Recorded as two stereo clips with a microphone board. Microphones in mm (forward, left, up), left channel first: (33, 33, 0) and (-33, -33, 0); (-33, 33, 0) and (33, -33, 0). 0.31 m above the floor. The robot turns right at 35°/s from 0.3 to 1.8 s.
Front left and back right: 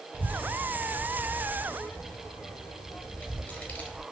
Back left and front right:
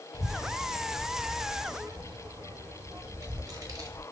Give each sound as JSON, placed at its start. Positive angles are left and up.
{"t": 0.1, "sound": "a child speaking", "azimuth_deg": -75, "distance_m": 0.7}